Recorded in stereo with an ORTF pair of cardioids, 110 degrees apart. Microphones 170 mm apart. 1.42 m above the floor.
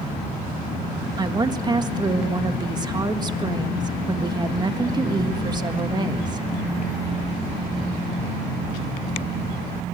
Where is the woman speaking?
25° right, 1.7 m.